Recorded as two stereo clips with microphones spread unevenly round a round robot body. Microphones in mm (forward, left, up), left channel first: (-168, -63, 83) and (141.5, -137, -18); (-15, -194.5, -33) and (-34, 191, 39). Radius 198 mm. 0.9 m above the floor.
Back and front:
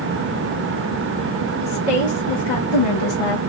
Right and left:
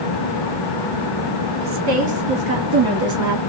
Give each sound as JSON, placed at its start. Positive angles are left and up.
{"t": 1.6, "sound": "a woman speaking", "azimuth_deg": 155, "distance_m": 2.0}